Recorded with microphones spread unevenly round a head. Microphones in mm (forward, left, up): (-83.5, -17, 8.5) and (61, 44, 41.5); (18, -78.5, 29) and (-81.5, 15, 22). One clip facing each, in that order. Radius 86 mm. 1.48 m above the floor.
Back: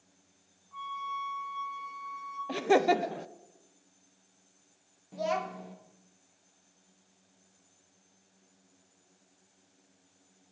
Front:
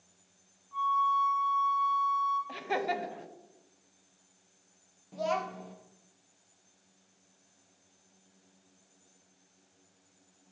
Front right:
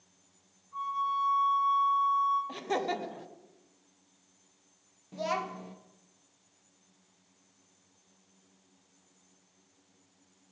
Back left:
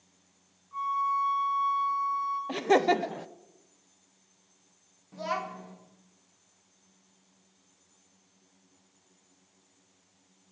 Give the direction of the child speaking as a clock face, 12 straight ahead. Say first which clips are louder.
Even, front right 1 dB; 2 o'clock.